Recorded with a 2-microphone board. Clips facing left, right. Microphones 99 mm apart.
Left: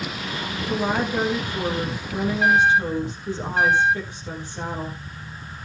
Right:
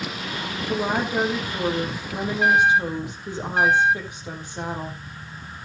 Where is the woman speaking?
20° right (ahead or behind), 4.5 m.